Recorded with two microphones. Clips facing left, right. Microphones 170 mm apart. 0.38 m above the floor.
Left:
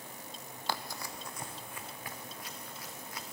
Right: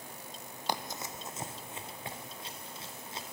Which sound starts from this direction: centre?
Running footsteps, at 0.7 s.